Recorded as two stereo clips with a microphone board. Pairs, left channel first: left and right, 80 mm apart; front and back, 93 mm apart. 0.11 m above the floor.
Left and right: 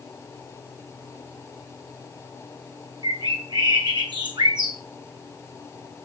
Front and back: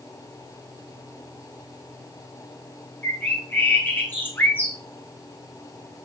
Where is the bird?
65° right, 1.5 m.